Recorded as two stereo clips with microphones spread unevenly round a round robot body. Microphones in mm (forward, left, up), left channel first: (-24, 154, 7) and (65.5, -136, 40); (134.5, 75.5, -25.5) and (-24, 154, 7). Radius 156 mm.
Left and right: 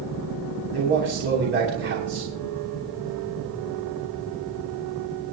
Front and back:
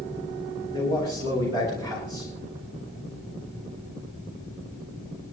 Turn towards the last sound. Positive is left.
turn(degrees=-130)